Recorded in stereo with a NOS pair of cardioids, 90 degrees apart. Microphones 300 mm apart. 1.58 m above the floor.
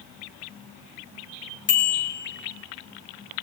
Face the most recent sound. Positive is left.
turn(degrees=40)